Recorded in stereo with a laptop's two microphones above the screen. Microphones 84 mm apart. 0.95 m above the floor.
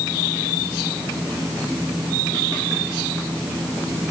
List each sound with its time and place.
Only background noise.